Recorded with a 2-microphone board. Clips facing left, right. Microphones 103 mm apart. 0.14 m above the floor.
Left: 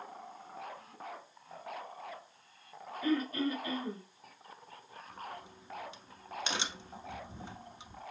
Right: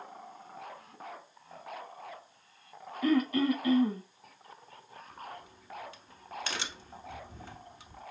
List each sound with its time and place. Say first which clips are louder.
3.0 s throat clearing: right 5 dB; 75° right (ahead or behind), 0.8 m
5.1 s a crack: left 1 dB; 20° left (ahead or behind), 0.7 m